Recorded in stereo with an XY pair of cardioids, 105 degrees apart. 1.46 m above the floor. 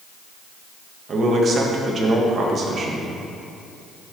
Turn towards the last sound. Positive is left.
turn(degrees=-45)